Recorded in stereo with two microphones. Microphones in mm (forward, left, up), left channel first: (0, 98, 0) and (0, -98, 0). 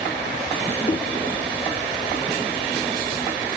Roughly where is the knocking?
Left.